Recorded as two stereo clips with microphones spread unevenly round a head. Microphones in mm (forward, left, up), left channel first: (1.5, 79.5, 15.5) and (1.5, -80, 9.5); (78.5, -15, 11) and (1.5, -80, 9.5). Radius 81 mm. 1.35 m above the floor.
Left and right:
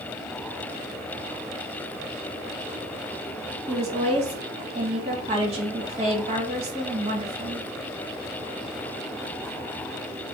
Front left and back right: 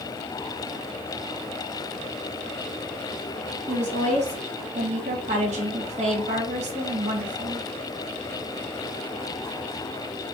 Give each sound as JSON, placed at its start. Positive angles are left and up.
{"t": 3.7, "sound": "a woman speaking", "azimuth_deg": -145, "distance_m": 1.7}